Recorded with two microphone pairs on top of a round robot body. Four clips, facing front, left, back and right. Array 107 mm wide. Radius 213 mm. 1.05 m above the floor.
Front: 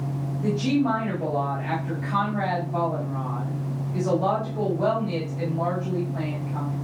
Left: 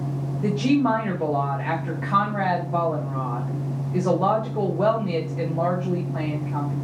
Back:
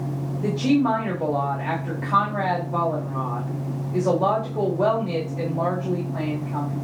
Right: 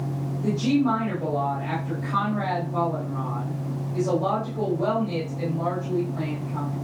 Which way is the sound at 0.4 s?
140° left.